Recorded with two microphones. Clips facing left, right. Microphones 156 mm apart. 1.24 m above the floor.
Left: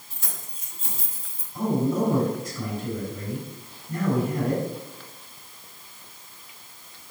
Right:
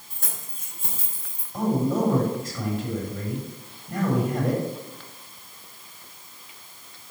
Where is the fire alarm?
No fire alarm in this recording.